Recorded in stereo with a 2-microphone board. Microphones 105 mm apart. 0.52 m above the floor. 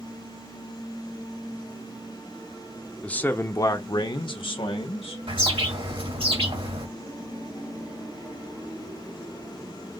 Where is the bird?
55° right (ahead or behind), 2.5 m.